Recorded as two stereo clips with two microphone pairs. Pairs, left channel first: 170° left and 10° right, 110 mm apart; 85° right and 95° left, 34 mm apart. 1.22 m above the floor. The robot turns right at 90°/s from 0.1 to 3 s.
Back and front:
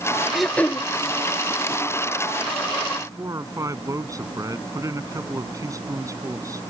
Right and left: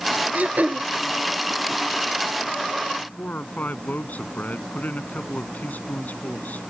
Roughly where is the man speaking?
Right.